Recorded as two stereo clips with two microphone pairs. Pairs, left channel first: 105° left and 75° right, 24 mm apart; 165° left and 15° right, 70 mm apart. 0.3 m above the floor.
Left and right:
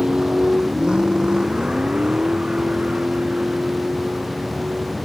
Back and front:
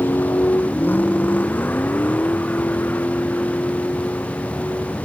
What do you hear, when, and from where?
0.0 s a vehicle: 135° right; by 5.1 s 125° right